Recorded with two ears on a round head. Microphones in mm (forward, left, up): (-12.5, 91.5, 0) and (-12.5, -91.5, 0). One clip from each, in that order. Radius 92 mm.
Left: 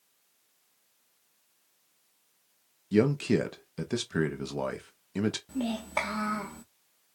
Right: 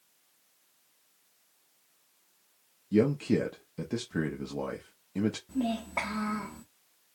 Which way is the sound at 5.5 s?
80° left.